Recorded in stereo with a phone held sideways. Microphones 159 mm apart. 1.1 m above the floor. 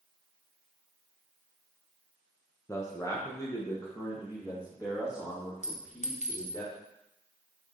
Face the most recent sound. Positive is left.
turn(degrees=50)  # may be behind; listen again after turning